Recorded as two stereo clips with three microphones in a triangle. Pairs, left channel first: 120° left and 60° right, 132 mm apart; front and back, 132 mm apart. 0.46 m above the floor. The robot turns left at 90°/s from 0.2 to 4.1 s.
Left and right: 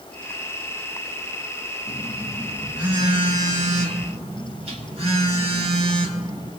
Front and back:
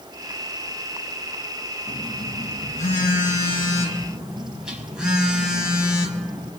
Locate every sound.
1.9 s a phone buzzing: 105° left, 1.7 m; by 6.5 s 95° right, 1.7 m